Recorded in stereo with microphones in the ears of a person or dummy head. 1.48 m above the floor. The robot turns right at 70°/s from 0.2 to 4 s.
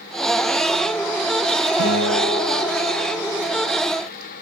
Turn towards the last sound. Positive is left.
turn(degrees=-120)